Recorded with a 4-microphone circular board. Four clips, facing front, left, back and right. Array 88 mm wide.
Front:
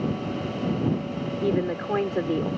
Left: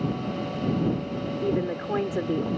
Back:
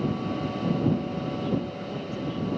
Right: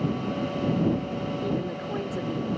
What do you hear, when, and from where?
1.4 s a woman speaking: 25° left